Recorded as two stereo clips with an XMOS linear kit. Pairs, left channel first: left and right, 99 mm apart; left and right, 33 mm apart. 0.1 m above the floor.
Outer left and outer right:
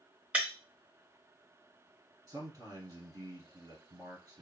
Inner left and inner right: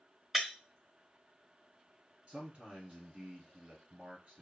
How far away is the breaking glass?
About 2 m.